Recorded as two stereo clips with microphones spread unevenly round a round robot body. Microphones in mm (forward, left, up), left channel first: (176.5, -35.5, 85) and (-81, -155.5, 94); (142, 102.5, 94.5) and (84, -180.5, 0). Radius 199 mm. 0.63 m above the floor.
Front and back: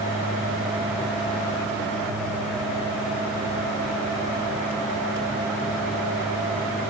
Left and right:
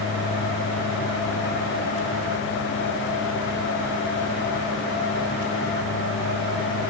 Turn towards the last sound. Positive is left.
No sound to turn to.